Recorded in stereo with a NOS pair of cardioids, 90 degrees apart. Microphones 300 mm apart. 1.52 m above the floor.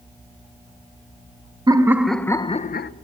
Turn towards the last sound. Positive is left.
turn(degrees=40)